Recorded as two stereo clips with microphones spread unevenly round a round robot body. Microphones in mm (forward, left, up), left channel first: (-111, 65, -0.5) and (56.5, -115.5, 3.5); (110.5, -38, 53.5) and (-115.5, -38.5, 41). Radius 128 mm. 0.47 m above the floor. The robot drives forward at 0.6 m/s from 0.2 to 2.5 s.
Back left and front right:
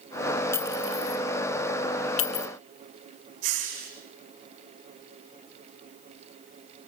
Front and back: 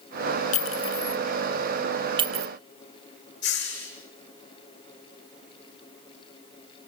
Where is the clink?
55° left, 1.2 m; by 2.5 s 125° left, 1.2 m.